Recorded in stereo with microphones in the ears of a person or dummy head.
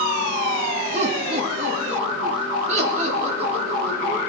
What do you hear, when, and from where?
0.9 s laughter: 40° right (ahead or behind), 2 m; by 4.2 s 45° right (ahead or behind), 5.5 m